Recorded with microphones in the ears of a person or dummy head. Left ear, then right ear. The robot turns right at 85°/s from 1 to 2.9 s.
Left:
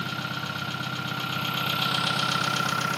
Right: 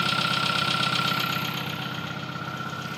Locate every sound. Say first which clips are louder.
0.0 s an engine running: right 7 dB; 30° right, 1.0 m; by 3.0 s 130° left, 1.0 m